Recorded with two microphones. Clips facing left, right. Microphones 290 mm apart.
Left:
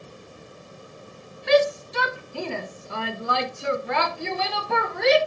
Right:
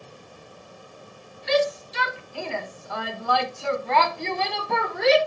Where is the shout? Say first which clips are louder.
Left 3 dB; 65° left (ahead or behind), 1.4 m; by 5.2 s centre (ahead or behind), 2 m.